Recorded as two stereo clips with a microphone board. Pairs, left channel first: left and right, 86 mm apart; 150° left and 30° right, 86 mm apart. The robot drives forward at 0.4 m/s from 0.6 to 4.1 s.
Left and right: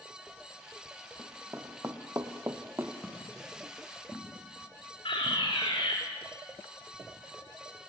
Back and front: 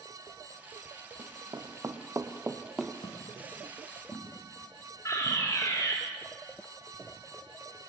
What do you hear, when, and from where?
1.2 s running footsteps: 35° right, 3 m; by 2.9 s 120° right, 1.8 m
3.0 s footsteps: 165° left, 8 m
5.0 s a fire alarm: 95° left, 8.5 m